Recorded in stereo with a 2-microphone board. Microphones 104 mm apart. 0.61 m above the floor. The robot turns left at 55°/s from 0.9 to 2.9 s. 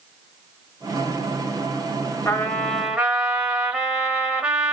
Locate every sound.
2.2 s a trumpet: 25° left, 1.2 m; by 4.7 s 10° right, 1.2 m